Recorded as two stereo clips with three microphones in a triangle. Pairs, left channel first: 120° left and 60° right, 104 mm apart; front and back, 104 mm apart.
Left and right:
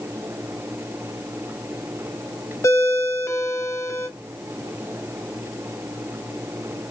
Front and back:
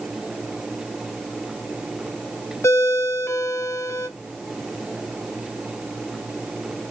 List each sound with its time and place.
2.6 s a ringtone: 60° left, 0.7 m